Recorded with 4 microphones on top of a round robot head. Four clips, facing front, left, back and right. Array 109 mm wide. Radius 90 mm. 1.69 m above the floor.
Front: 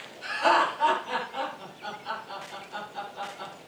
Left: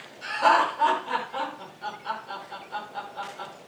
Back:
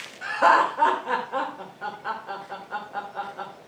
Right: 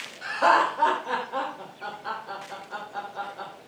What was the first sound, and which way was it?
Laughter, 155° right.